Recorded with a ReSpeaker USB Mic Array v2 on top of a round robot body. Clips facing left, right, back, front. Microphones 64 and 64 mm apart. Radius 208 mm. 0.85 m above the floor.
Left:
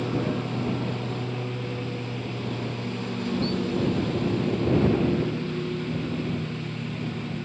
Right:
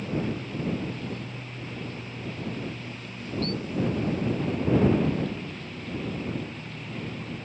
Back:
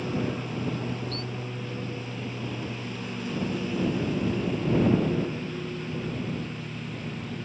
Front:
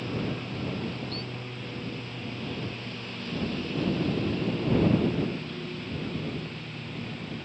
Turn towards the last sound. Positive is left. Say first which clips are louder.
# left 3 dB, back 3 dB
turn(degrees=100)